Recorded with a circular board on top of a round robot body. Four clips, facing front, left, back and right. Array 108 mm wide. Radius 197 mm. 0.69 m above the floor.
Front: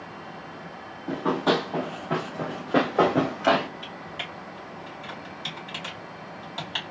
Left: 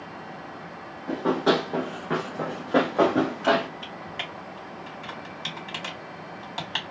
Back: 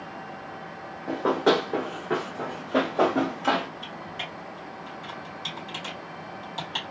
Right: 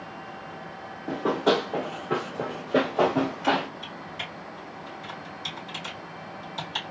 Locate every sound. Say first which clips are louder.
1.1 s running footsteps: left 1 dB, back 2 dB; 165° left, 1.0 m; by 3.7 s 15° left, 1.1 m
3.8 s typing on a keyboard: left 1 dB, back 1 dB; 90° left, 1.2 m